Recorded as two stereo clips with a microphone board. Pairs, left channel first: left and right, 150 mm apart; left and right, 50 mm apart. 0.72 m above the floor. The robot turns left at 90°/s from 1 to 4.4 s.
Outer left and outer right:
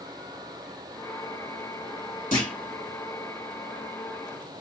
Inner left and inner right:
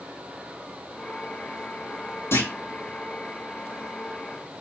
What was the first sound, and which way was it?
A clunk, 60° left (ahead or behind).